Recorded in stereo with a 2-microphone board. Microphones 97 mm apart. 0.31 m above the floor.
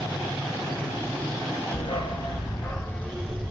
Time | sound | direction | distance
1.7 | a dog barking | 75° left (ahead or behind) | 1.3 m